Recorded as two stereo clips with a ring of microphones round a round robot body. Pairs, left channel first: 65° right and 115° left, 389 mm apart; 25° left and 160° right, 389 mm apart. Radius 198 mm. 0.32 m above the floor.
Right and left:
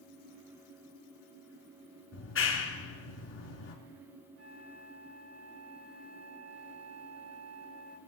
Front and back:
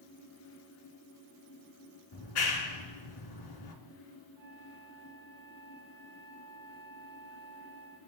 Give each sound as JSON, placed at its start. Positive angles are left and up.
{"t": 2.1, "sound": "a clap", "azimuth_deg": -10, "distance_m": 3.0}
{"t": 4.4, "sound": "a flute", "azimuth_deg": 170, "distance_m": 4.0}